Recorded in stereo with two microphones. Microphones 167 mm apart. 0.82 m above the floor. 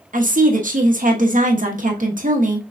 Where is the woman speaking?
50° right (ahead or behind), 1.0 m.